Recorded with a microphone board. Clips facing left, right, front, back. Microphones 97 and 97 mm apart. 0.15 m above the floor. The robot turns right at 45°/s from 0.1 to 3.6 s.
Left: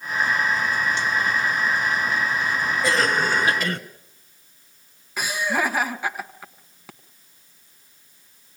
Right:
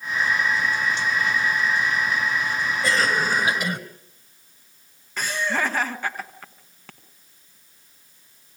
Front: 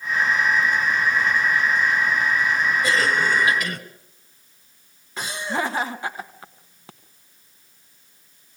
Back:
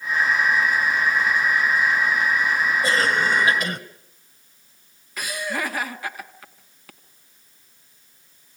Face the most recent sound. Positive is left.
turn(degrees=20)